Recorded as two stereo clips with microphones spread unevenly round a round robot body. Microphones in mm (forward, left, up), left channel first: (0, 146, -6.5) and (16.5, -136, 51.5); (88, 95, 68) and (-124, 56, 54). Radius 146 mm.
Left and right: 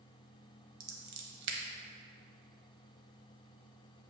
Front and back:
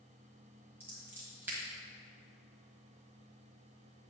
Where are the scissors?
85° right, 1.3 m.